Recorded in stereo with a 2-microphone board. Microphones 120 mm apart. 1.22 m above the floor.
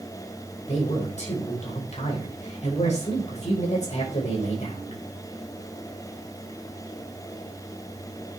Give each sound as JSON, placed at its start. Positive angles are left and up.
{"t": 0.6, "sound": "a man speaking", "side_deg": 70, "distance_m": 5.5}